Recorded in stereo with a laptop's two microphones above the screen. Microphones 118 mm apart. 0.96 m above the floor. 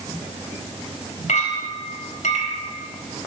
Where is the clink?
85° left, 3.5 m.